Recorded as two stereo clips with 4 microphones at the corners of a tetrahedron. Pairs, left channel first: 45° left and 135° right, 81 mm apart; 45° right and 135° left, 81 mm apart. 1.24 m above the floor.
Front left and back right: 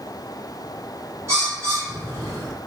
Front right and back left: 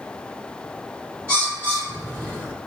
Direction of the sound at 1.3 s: 170° right.